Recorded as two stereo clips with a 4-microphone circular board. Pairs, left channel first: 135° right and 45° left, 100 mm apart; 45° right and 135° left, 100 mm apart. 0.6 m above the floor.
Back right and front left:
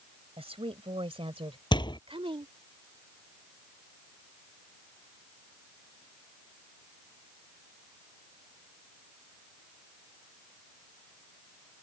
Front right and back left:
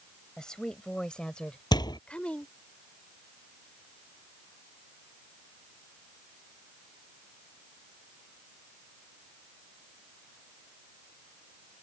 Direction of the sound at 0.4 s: 35° left.